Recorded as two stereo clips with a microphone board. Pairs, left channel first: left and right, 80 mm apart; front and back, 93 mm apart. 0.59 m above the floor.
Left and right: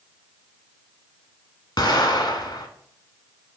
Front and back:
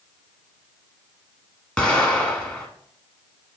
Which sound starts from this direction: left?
An explosion, at 1.8 s.